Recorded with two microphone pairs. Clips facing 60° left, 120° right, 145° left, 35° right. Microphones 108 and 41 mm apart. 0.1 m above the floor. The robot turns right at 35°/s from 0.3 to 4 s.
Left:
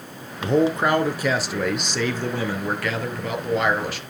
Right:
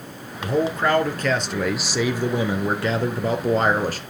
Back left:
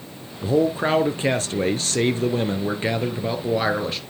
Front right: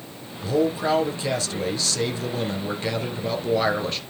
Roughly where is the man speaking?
Left.